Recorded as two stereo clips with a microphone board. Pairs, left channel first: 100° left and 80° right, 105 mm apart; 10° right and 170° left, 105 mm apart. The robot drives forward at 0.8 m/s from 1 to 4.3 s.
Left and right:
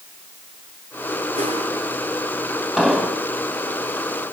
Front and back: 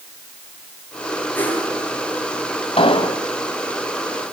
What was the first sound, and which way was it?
A whoosh, 80° right.